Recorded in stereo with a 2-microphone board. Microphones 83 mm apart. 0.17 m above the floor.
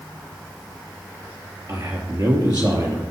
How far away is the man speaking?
About 3.5 m.